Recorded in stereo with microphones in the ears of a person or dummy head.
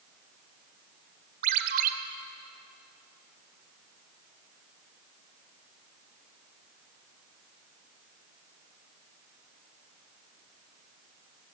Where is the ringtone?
55° right (ahead or behind), 1.7 m.